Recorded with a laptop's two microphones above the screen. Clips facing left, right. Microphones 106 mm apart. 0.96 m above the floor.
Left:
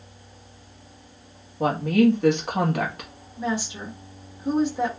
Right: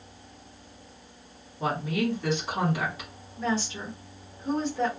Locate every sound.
1.6 s a woman speaking: 55° left (ahead or behind), 1.4 m
3.4 s a woman speaking: 15° left (ahead or behind), 0.9 m